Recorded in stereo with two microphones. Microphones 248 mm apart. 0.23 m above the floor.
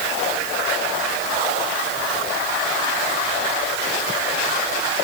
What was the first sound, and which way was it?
Only background noise.